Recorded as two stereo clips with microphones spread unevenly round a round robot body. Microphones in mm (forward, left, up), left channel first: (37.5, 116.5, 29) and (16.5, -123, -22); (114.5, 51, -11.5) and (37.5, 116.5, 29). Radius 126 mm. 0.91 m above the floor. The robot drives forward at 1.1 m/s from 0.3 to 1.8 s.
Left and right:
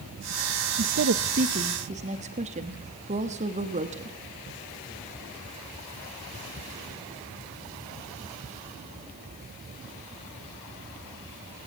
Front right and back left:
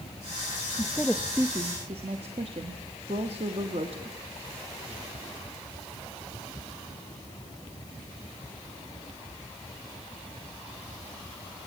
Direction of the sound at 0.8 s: 80° right.